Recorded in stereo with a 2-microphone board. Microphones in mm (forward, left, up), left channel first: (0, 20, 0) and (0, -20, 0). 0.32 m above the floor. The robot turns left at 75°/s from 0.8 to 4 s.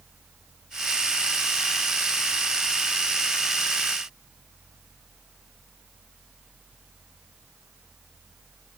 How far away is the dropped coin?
No dropped coin in this recording.